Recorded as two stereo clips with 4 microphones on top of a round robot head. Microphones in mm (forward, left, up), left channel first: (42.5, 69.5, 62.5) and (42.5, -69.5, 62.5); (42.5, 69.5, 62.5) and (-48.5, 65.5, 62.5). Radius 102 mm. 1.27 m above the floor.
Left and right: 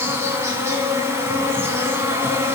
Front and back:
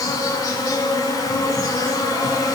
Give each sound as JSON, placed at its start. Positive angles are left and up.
{"t": 0.0, "sound": "an insect", "azimuth_deg": -25, "distance_m": 1.4}